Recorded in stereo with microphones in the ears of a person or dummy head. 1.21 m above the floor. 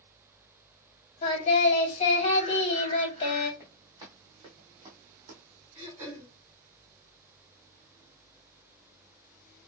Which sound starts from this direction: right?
Throat clearing, at 5.8 s.